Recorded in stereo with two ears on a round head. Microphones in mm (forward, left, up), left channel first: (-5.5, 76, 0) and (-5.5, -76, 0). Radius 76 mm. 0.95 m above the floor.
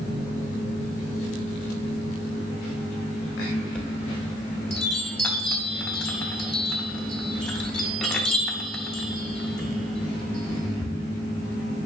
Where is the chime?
5° left (ahead or behind), 0.8 m.